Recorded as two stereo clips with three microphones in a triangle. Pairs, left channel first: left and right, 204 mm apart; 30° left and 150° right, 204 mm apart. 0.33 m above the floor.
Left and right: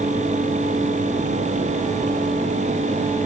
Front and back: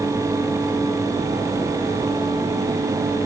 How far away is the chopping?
No chopping in this recording.